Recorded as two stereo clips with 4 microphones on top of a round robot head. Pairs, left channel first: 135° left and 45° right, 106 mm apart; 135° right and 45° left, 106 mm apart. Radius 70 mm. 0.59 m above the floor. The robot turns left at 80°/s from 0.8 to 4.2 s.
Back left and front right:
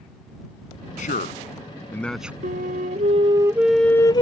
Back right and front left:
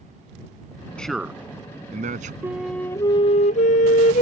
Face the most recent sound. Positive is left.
turn(degrees=-170)